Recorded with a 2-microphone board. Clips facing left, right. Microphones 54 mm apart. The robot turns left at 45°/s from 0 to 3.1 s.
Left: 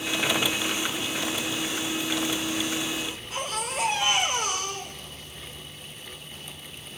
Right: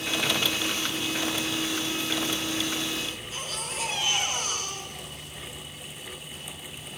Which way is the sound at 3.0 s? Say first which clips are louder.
Left 3 dB; 65° left (ahead or behind).